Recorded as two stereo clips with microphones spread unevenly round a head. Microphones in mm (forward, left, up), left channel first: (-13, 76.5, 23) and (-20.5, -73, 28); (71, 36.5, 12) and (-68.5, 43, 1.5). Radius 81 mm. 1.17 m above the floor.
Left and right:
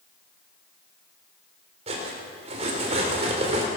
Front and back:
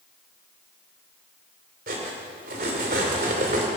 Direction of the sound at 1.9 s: 140° right.